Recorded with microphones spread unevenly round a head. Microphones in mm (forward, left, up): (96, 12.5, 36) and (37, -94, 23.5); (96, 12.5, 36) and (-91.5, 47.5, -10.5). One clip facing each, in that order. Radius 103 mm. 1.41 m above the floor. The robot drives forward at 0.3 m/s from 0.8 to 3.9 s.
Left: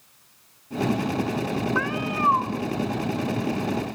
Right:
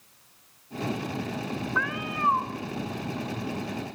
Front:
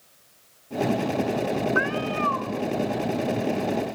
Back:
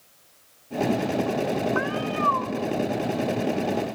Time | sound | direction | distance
1.8 | a cat meowing | 30° left | 1.9 m